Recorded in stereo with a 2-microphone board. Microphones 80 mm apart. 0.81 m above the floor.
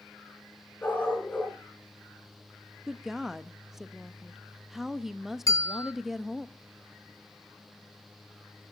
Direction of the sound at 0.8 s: 20° left (ahead or behind).